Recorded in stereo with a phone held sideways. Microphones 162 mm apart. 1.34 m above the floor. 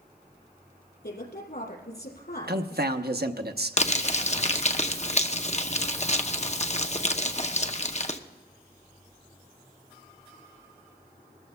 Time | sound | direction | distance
1.0 | a woman speaking | 85° left | 4.5 m
2.5 | a man speaking | 75° right (ahead or behind) | 0.8 m
3.8 | crumpling | 45° left (ahead or behind) | 0.7 m